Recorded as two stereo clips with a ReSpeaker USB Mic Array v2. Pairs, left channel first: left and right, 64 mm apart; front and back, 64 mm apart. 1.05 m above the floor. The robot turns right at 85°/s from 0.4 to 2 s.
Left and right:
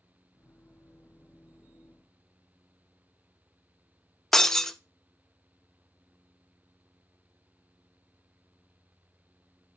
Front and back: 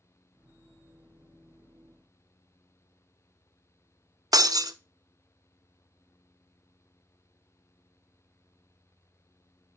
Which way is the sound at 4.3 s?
170° left.